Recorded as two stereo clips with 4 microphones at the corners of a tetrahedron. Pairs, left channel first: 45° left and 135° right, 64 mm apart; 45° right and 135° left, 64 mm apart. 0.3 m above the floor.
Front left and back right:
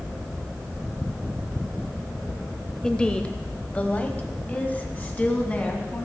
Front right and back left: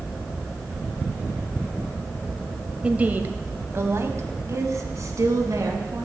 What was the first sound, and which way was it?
A woman speaking, 105° left.